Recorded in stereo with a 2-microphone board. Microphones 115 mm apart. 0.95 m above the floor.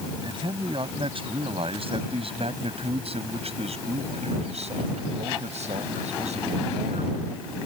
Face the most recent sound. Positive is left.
turn(degrees=-85)